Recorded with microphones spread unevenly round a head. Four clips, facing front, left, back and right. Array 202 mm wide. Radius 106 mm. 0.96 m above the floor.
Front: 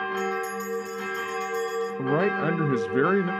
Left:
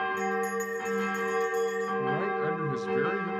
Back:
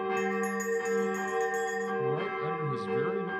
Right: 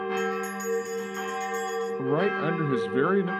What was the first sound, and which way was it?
A bell, straight behind.